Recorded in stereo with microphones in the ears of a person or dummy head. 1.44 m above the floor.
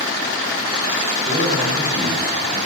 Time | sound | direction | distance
1.2 | a man speaking | 45° right (ahead or behind) | 3 m